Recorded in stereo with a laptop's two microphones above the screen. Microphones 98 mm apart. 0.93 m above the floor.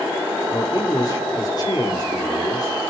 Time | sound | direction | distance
0.5 | a man speaking | 40° left (ahead or behind) | 2.5 m